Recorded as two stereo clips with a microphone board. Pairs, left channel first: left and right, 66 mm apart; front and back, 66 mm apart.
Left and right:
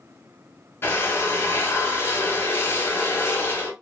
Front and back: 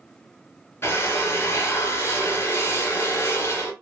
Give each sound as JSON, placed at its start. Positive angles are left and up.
{"t": 0.8, "sound": "a drill", "azimuth_deg": 40, "distance_m": 0.9}